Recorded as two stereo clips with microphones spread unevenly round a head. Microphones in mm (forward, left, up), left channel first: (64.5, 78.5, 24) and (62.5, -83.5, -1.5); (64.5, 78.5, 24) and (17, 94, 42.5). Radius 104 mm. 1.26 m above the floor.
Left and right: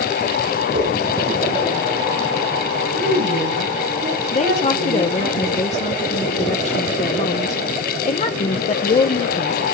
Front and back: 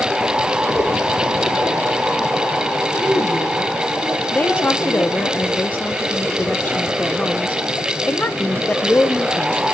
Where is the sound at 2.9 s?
75° right, 9.5 m.